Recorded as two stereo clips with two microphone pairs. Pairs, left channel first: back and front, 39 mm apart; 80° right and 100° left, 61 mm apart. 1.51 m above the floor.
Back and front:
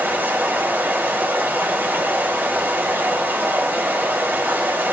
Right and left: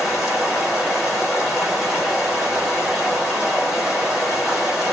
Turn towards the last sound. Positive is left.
turn(degrees=15)